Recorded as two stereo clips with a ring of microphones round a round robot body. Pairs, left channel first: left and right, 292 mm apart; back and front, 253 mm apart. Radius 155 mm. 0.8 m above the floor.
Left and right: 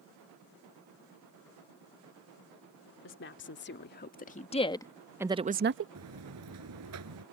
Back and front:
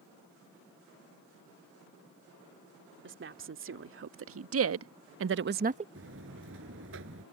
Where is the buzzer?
50° right.